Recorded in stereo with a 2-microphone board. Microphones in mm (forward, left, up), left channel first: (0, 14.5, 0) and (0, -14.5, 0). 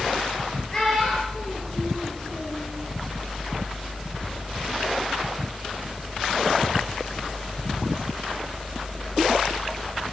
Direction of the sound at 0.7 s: 15° left (ahead or behind).